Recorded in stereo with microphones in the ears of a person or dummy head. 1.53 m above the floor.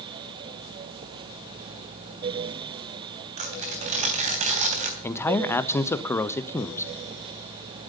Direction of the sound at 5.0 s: 15° left (ahead or behind).